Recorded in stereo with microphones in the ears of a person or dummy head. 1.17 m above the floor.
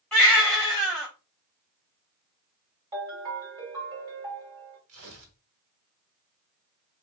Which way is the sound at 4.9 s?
75° right (ahead or behind).